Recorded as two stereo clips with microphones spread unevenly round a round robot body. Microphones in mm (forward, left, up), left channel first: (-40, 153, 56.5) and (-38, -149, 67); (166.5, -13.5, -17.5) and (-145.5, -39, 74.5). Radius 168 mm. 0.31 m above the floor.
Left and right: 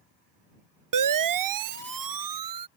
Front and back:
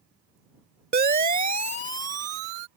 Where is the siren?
110° right; by 2.7 s 100° right.